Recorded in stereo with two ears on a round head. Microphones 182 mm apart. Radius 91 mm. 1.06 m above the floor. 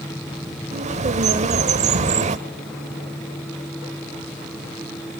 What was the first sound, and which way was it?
A bird, 35° right (ahead or behind).